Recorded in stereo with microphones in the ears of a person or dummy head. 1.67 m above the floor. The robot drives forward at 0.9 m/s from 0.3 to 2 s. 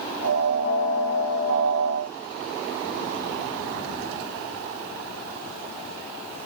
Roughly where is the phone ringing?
I don't hear a phone ringing.